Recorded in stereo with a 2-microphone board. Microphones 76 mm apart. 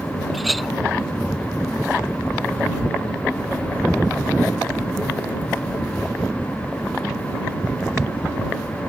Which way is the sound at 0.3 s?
Centre (ahead or behind).